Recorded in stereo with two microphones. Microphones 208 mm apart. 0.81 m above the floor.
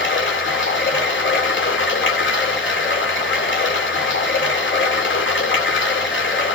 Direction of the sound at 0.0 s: 60° left (ahead or behind).